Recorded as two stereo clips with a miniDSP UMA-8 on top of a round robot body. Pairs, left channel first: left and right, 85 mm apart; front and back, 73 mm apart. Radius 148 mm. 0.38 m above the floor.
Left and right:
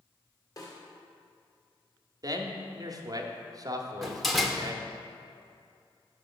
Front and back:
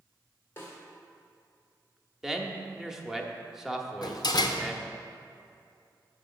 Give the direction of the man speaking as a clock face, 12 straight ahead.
3 o'clock.